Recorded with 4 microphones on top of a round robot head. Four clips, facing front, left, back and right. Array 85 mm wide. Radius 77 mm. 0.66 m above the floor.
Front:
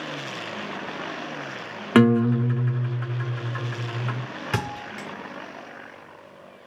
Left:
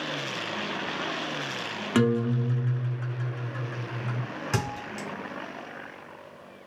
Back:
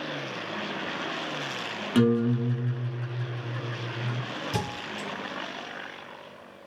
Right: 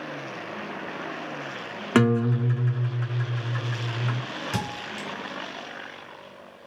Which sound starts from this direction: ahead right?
A guitar, at 1.9 s.